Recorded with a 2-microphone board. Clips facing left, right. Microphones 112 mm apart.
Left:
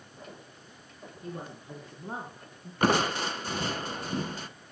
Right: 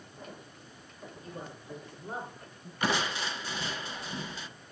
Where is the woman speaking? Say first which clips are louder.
Left 4 dB; 45° left (ahead or behind), 3 m; by 2.7 s 20° left (ahead or behind), 2.5 m.